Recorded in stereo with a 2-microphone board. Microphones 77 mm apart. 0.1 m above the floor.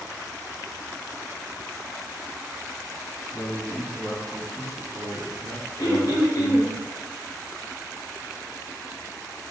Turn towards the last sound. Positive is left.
turn(degrees=50)  # may be behind; listen again after turning